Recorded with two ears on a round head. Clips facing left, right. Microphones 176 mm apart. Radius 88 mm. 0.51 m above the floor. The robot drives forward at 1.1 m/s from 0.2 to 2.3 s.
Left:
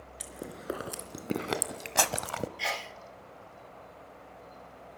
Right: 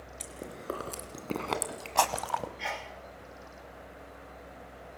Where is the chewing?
10° left (ahead or behind), 3.5 m; by 2.5 s 30° left (ahead or behind), 1.1 m.